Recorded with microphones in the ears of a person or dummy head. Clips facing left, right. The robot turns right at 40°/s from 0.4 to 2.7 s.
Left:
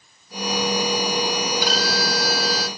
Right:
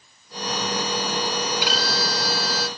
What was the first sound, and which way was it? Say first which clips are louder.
A violin: left 2 dB; 40° left.